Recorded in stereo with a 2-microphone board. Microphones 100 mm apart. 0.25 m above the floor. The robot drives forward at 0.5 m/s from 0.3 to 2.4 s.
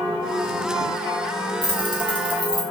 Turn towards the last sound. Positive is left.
turn(degrees=60)  # may be behind; listen again after turning